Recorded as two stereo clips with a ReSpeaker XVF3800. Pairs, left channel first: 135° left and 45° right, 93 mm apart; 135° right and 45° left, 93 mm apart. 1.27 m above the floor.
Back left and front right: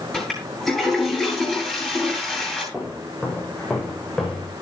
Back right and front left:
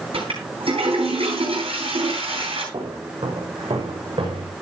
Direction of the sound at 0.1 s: 50° left.